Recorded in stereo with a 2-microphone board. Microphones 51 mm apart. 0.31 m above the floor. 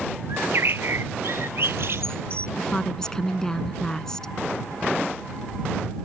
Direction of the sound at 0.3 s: 60° right (ahead or behind).